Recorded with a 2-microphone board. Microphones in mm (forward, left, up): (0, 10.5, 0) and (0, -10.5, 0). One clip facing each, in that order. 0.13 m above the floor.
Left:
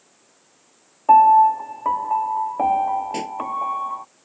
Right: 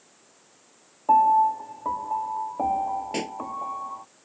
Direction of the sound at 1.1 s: 60° left (ahead or behind).